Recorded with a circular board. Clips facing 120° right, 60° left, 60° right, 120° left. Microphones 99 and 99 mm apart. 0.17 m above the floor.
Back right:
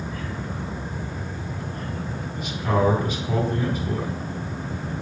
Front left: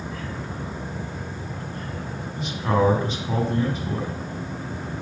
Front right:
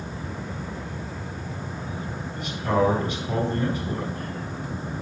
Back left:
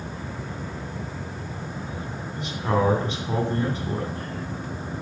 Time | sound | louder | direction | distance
2.4 | a man speaking | front left 1 dB, front right 1 dB | 90° left | 1.9 m